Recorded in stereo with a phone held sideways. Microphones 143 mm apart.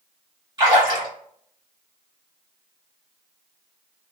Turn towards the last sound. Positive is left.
turn(degrees=-35)  # may be behind; listen again after turning